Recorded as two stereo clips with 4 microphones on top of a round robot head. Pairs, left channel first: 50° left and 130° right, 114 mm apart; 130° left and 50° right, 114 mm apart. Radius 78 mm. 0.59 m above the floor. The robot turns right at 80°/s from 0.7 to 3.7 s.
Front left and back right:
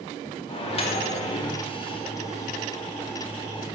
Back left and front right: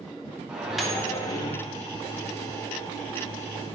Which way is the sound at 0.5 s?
30° left.